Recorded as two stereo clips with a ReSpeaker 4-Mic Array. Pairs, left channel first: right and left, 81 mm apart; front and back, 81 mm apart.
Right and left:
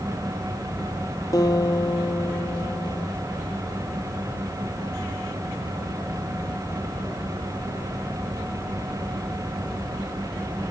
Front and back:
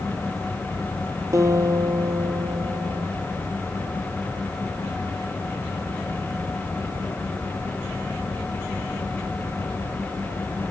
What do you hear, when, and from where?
1.3 s a guitar: 130° right, 1.3 m